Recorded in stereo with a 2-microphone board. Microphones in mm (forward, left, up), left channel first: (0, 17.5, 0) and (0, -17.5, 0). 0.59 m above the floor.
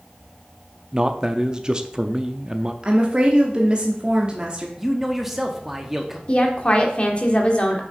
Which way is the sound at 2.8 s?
25° right (ahead or behind).